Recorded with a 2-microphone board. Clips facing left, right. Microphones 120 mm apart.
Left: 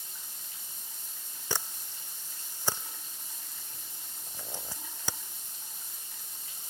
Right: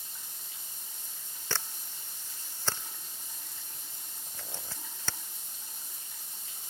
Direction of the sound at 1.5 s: 15° left (ahead or behind).